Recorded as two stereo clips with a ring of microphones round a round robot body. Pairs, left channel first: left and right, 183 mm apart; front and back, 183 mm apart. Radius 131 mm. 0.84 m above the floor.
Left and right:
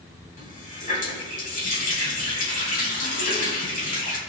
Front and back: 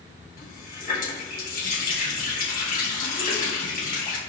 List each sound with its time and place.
0.4 s a running tap: 45° left, 3.5 m